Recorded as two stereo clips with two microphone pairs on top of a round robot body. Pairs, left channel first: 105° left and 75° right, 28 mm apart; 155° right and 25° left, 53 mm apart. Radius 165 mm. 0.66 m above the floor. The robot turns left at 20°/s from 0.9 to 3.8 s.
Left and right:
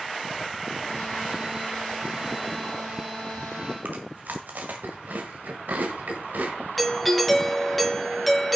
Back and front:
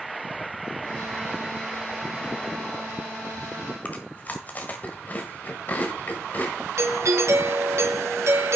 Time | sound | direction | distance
3.9 | chewing | 95° right | 1.5 m
6.8 | a doorbell | 25° left | 1.9 m